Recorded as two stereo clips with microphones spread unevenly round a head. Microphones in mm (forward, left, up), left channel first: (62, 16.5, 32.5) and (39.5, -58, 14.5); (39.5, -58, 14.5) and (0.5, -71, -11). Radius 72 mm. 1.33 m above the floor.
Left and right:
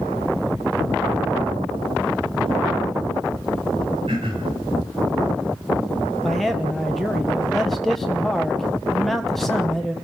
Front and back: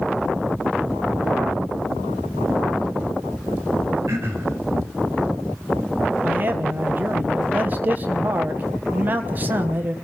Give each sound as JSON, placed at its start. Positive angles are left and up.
{"t": 4.1, "sound": "throat clearing", "azimuth_deg": -155, "distance_m": 4.0}
{"t": 6.2, "sound": "a man speaking", "azimuth_deg": 165, "distance_m": 1.1}